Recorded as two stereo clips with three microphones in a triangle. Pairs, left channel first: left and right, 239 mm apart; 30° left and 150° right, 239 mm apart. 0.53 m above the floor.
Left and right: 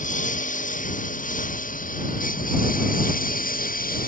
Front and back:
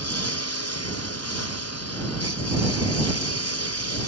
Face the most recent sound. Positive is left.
turn(degrees=35)